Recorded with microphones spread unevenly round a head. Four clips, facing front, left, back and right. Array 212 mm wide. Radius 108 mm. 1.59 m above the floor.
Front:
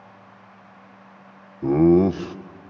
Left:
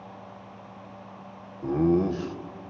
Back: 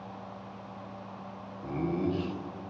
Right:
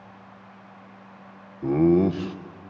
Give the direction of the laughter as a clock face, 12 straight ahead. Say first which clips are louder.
Right 4 dB, front 15 dB; 1 o'clock.